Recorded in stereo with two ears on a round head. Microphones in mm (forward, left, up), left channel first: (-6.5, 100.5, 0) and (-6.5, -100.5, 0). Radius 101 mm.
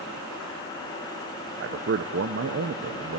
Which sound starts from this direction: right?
A man speaking, at 1.6 s.